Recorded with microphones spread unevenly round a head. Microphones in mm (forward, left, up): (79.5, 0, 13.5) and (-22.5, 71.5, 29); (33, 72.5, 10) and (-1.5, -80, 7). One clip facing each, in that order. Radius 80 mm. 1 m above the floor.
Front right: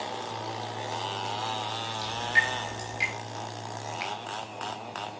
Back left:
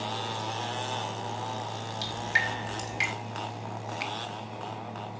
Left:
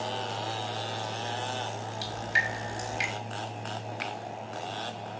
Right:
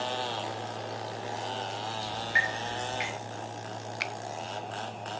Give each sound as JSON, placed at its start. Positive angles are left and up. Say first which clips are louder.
{"t": 2.0, "sound": "dripping", "louder": "front right 2 dB, right 1 dB", "azimuth_deg": 125, "distance_m": 5.0}
{"t": 4.0, "sound": "a finger snap", "louder": "front right 1 dB, left 2 dB", "azimuth_deg": -140, "distance_m": 0.7}